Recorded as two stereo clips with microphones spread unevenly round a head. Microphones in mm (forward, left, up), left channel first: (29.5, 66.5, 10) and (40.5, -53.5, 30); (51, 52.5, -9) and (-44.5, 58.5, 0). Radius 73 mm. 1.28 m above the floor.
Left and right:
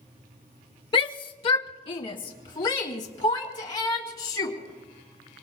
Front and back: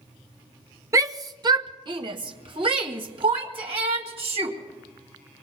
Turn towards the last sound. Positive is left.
turn(degrees=155)